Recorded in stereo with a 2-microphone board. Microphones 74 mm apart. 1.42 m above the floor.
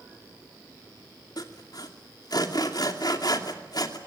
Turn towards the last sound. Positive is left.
turn(degrees=60)  # may be behind; listen again after turning